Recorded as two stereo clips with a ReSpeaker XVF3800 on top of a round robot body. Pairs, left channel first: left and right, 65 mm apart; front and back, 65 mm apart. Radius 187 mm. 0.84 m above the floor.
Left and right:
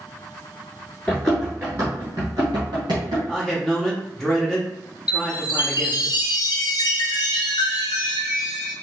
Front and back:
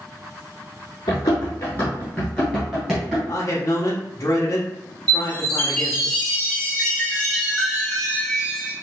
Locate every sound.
1.1 s running footsteps: 20° left, 0.9 m; by 3.2 s 105° right, 1.2 m
3.3 s a man speaking: 5° left, 0.9 m
5.1 s a chime: 80° left, 0.8 m